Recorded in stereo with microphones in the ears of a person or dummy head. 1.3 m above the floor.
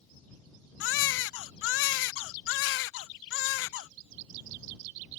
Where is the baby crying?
70° left (ahead or behind).